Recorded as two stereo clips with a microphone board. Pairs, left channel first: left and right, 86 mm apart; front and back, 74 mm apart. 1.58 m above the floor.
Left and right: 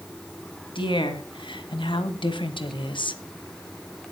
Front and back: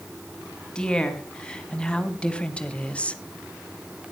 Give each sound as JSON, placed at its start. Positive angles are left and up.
{"t": 0.8, "sound": "a woman speaking", "azimuth_deg": 80, "distance_m": 3.0}